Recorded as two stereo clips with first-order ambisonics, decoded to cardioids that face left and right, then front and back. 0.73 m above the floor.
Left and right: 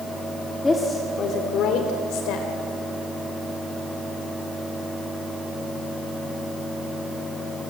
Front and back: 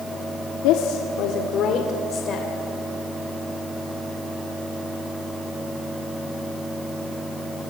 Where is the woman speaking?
10° left, 1.6 m; by 2.5 s 60° left, 3 m.